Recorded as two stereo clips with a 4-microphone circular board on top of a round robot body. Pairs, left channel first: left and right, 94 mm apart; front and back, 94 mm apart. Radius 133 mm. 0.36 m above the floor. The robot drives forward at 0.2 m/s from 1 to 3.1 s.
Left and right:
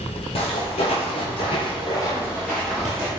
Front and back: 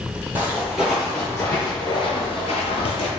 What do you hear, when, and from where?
0.3 s footsteps: 110° left, 0.9 m; by 3.1 s 10° right, 0.7 m